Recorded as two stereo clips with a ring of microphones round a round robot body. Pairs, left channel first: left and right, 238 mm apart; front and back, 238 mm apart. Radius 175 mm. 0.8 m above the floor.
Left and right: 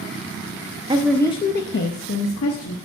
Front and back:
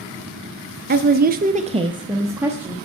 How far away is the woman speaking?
About 0.6 m.